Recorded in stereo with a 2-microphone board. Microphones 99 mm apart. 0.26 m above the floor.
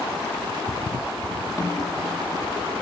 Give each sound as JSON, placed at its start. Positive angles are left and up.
{"t": 1.6, "sound": "a snare drum", "side_deg": 30, "distance_m": 3.5}